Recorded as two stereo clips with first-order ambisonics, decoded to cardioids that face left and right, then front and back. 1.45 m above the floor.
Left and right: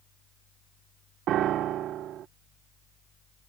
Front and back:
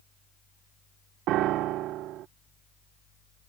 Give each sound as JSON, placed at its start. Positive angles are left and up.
{"t": 1.3, "sound": "a piano", "azimuth_deg": -140}